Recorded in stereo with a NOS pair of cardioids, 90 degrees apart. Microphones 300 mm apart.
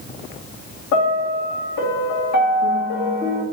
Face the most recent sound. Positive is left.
turn(degrees=65)